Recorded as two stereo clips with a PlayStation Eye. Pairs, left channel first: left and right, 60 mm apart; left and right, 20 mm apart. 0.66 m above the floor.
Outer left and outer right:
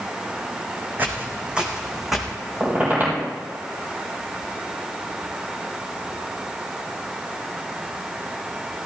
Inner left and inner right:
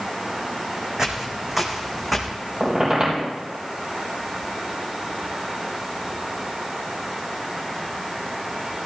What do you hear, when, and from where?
1.0 s footsteps: 30° right (ahead or behind), 2.0 m; by 2.3 s centre (ahead or behind), 2.5 m
2.6 s a squeak: 30° right (ahead or behind), 3.5 m